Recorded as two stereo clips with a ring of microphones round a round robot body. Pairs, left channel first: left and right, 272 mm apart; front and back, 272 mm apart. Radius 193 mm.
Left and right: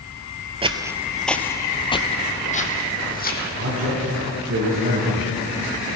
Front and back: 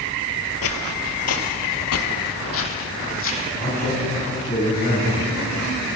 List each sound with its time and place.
0.6 s footsteps: 25° right, 0.9 m; by 3.5 s 35° left, 2 m
3.6 s a man speaking: 60° right, 5.5 m